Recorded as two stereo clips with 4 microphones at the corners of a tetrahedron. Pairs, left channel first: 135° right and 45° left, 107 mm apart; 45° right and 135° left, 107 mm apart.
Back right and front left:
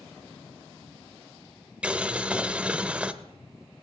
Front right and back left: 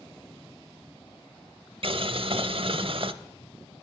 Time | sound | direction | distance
1.8 | boiling | 120° left | 0.8 m